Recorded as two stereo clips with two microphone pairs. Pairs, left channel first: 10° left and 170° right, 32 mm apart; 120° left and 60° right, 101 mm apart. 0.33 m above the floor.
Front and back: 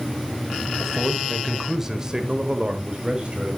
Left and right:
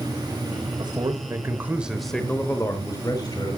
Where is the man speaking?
75° right, 1.5 m; by 3.6 s 145° left, 1.9 m.